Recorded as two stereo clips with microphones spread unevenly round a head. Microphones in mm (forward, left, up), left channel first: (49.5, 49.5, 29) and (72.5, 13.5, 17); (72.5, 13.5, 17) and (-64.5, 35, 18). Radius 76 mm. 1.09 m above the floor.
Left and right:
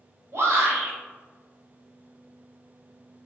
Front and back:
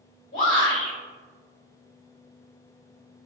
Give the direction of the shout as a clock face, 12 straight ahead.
1 o'clock.